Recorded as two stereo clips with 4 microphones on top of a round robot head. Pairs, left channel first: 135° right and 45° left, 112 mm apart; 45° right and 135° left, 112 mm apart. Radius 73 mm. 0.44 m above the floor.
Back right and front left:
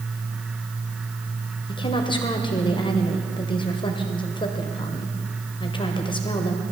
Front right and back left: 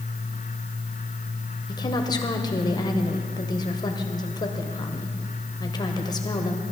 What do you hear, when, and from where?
1.7 s a woman speaking: 95° right, 1.8 m